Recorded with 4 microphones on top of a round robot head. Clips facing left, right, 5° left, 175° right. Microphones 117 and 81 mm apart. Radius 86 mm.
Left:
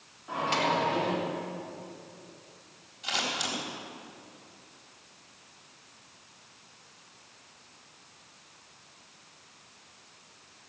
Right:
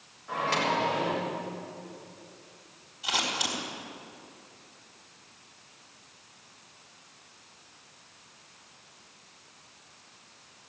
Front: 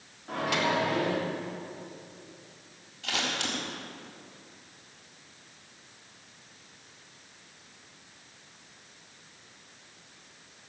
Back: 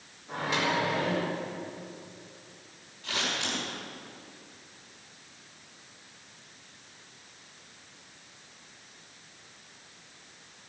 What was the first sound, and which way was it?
A microwave, 20° left.